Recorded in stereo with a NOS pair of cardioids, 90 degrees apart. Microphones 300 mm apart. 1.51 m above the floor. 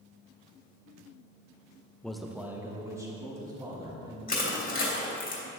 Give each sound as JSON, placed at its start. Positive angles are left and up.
{"t": 2.0, "sound": "a man speaking", "azimuth_deg": 5, "distance_m": 0.7}
{"t": 4.3, "sound": "crushing", "azimuth_deg": 30, "distance_m": 2.5}